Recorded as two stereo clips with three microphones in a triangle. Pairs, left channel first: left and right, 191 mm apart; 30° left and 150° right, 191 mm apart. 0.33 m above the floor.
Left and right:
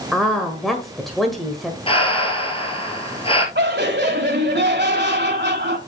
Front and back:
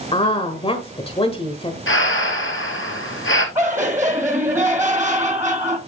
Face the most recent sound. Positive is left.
turn(degrees=-75)